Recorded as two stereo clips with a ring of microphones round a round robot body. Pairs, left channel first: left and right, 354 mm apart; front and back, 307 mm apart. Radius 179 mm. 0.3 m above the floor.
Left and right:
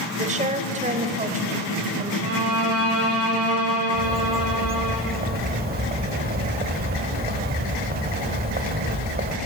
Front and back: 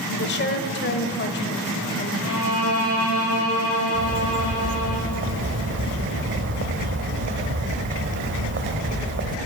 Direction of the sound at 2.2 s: 50° right.